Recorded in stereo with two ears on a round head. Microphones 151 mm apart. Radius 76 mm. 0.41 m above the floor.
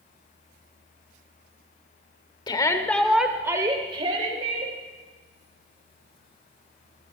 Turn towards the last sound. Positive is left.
turn(degrees=-45)  # may be behind; listen again after turning